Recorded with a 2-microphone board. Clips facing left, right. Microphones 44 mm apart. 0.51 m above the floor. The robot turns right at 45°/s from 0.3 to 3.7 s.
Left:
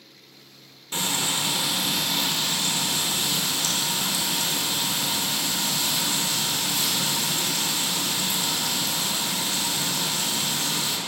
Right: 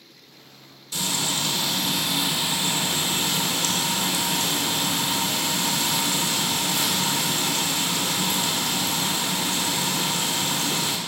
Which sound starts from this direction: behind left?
Frying, at 0.9 s.